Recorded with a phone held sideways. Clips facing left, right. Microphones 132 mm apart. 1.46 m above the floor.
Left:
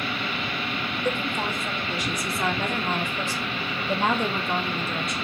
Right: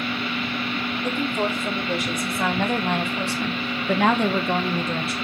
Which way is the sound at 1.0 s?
45° right (ahead or behind).